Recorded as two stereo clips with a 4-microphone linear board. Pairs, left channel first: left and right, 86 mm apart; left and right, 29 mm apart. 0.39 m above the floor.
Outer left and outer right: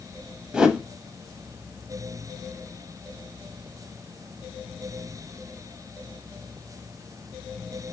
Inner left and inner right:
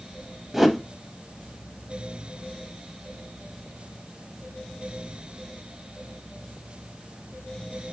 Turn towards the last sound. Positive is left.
turn(degrees=-10)  # may be behind; listen again after turning